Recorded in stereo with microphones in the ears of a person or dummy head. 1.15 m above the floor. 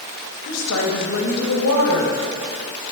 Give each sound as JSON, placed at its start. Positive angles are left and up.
{"t": 0.5, "sound": "a woman speaking", "side_deg": 85, "distance_m": 1.4}